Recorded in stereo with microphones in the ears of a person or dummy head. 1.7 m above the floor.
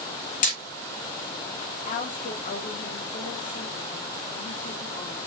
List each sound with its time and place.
0.4 s hammering: 45° left (ahead or behind), 1.3 m
1.9 s a woman speaking: 35° left (ahead or behind), 1.0 m